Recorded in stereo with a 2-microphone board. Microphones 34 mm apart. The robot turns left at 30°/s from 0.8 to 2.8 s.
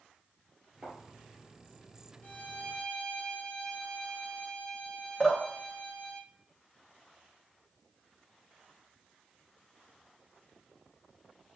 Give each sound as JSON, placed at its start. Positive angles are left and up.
{"t": 0.8, "sound": "a thud", "side_deg": -40, "distance_m": 1.9}
{"t": 2.2, "sound": "a violin", "side_deg": 60, "distance_m": 1.8}
{"t": 5.2, "sound": "dripping", "side_deg": 25, "distance_m": 1.0}